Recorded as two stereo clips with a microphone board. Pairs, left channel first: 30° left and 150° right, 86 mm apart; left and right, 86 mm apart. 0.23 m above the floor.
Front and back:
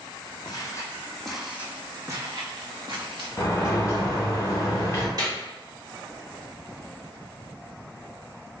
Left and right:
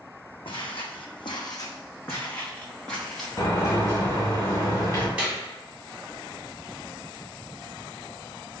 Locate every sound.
0.5 s footsteps: 70° left, 0.7 m; by 3.3 s 175° left, 1.5 m
3.4 s a sliding door: 70° left, 1.6 m
5.2 s a clap: 160° right, 1.4 m